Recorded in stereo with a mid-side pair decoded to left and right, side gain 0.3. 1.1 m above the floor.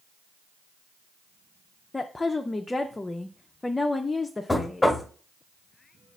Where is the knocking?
20° left, 1.3 m.